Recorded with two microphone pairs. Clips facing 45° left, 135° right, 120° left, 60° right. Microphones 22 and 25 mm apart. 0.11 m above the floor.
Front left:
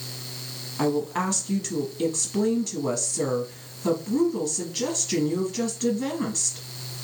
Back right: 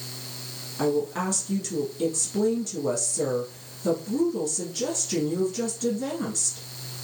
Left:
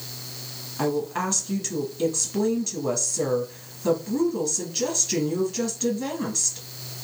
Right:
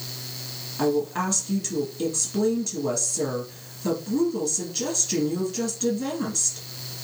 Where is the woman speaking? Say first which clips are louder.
Even, right 2 dB; 40° left, 1.3 m.